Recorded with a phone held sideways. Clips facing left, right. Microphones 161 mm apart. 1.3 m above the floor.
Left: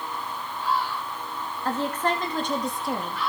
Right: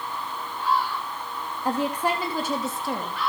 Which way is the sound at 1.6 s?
15° right (ahead or behind).